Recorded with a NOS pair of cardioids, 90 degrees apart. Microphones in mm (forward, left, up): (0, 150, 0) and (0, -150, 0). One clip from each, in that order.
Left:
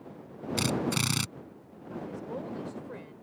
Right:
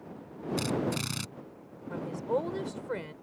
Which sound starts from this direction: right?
A woman speaking, at 1.9 s.